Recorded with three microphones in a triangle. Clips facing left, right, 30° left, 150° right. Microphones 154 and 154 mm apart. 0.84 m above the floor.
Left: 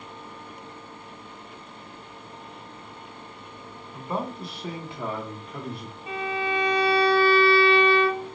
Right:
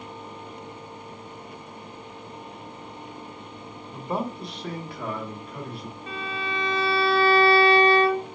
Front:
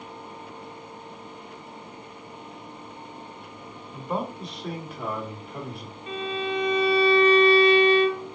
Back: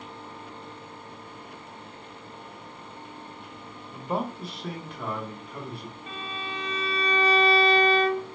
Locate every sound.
3.9 s a man speaking: 100° right, 1.0 m; by 6.0 s 100° left, 1.4 m
6.1 s a violin: 160° left, 1.2 m